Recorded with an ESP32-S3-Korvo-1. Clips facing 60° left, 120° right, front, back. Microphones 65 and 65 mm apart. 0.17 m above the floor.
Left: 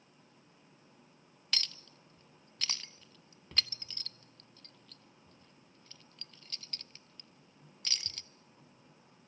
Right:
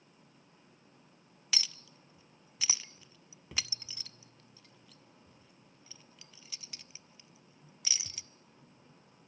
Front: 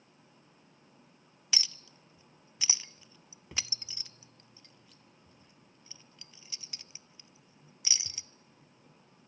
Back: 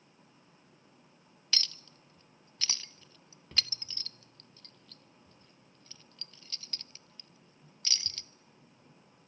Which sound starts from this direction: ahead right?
A clink, at 1.5 s.